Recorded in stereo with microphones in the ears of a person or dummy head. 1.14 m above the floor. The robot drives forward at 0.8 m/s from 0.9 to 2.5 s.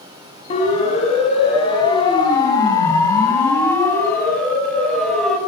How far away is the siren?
About 7 m.